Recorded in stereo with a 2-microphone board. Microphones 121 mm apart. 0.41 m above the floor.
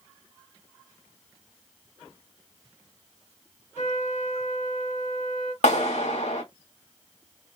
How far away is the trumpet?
About 1.8 m.